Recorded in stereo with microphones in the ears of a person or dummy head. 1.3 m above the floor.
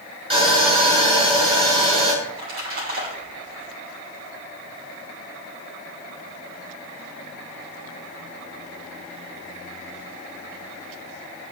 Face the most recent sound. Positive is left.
turn(degrees=-80)